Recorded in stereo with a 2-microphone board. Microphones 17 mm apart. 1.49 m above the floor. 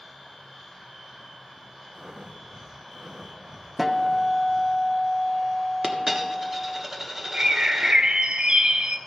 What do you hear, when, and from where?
1.9 s breathing: 75° right (ahead or behind), 1.1 m
3.8 s a guitar: 10° right (ahead or behind), 0.6 m
5.8 s a dropped coin: 25° right (ahead or behind), 1.2 m
7.3 s a bird: 75° right (ahead or behind), 0.7 m